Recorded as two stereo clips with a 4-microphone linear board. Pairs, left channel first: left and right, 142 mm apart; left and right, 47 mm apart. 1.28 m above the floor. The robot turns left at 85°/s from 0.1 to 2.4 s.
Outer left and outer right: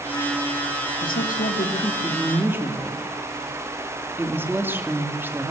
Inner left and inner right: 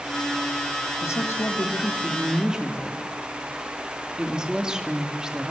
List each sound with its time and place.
1.0 s a woman speaking: 105° left, 3 m; by 5.5 s 15° right, 3 m